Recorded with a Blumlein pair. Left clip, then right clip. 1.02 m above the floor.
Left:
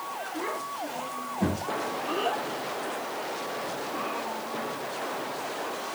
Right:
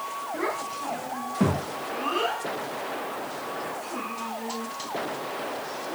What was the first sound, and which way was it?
A child speaking, 55° right.